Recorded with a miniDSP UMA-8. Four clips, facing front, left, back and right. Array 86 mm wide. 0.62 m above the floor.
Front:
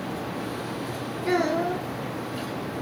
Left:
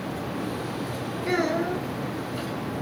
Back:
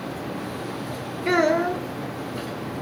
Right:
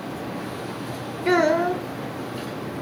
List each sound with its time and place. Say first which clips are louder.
1.2 s a child speaking: right 6 dB, back 4 dB; 120° right, 0.6 m